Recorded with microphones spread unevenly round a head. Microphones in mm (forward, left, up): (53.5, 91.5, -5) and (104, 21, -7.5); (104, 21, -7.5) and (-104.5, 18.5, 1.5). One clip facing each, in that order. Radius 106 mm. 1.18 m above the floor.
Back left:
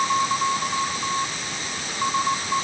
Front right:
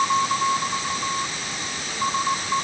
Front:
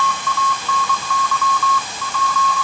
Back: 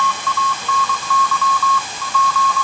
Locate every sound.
Only background noise.